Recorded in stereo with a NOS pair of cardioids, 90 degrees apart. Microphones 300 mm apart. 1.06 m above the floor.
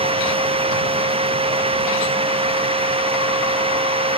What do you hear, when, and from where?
0.0 s a machine running: 20° right